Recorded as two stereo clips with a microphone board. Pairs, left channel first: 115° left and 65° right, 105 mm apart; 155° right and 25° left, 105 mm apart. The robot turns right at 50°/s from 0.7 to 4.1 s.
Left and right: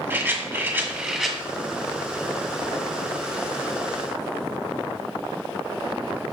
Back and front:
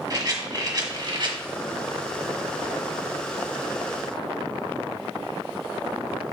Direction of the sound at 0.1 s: 10° right.